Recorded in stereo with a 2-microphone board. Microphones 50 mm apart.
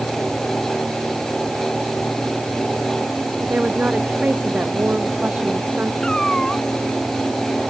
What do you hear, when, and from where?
3.4 s a woman speaking: 35° right (ahead or behind)
6.0 s a cat meowing: 15° left (ahead or behind)